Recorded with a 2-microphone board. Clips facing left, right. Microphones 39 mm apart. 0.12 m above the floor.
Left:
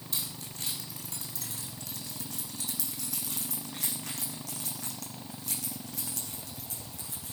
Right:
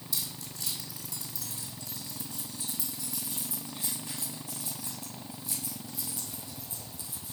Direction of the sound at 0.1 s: 40° left (ahead or behind).